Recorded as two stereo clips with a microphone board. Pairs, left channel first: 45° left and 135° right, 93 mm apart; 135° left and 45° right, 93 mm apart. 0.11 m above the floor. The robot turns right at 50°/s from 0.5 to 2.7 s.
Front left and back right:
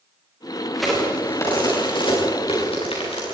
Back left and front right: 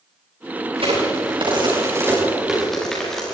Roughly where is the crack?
Ahead right.